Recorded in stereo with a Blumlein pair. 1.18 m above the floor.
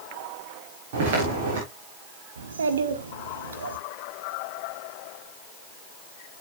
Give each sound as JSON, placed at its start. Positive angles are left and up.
{"t": 0.9, "sound": "footsteps", "azimuth_deg": -50, "distance_m": 5.5}
{"t": 2.4, "sound": "a child speaking", "azimuth_deg": -70, "distance_m": 1.4}